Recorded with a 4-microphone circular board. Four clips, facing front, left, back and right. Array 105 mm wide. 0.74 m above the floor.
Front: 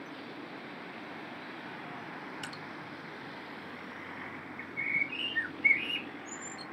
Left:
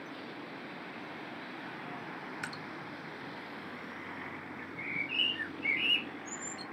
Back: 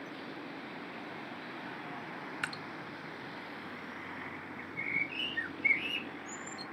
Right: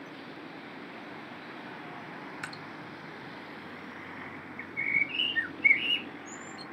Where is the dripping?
175° left, 0.6 m.